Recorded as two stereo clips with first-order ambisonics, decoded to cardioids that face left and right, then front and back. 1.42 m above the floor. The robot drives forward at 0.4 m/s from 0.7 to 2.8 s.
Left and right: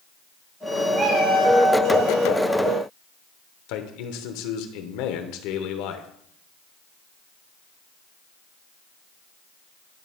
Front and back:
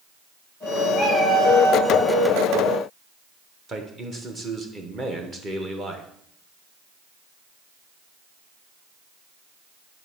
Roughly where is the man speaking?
Left.